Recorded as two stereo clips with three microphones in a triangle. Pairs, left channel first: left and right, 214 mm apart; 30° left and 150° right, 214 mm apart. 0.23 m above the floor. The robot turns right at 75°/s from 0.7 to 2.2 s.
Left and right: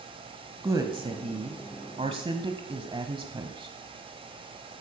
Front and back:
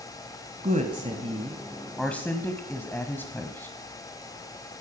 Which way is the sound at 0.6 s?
155° right.